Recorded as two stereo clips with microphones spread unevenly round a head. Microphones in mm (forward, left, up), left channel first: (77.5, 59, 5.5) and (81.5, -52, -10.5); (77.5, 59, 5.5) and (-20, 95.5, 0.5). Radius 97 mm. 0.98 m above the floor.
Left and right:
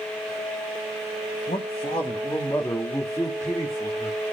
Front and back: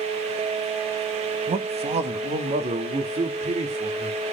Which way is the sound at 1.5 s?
150° left.